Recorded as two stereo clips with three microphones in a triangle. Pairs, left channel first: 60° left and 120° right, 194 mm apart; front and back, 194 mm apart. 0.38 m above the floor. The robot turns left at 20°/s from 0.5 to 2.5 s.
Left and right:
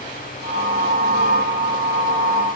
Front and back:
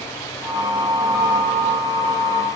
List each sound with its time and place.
Only background noise.